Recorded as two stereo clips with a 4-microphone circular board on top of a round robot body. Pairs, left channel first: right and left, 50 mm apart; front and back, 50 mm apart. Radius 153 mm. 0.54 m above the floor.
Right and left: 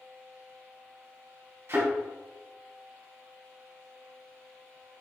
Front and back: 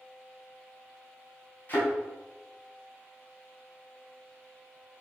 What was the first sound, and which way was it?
A thud, 50° left.